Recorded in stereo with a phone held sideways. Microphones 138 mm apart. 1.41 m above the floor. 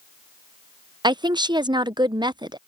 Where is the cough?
No cough in this recording.